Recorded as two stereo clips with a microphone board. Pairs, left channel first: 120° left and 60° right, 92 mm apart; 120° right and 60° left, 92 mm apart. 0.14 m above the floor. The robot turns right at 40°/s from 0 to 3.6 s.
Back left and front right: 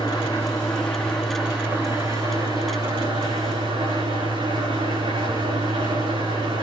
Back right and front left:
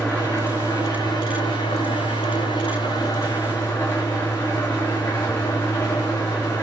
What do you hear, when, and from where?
0.0 s an engine running: 155° left, 6 m; by 6.6 s 60° right, 6 m